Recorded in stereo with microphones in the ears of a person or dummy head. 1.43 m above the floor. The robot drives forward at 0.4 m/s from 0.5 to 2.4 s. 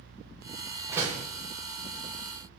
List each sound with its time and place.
0.9 s a door slam: 15° right (ahead or behind), 1.2 m